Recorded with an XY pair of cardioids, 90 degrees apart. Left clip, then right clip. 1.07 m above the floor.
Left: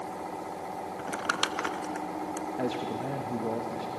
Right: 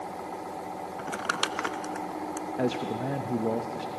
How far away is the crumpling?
About 0.8 m.